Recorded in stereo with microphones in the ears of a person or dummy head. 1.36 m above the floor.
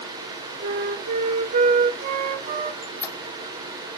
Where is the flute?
50° right (ahead or behind), 1.2 m.